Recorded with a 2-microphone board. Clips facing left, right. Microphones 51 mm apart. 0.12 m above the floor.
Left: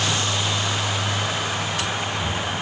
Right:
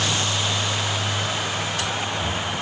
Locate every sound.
Only background noise.